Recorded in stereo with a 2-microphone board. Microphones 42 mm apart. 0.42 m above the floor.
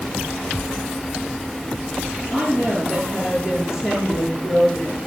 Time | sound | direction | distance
2.3 | a woman speaking | 10° right (ahead or behind) | 8 m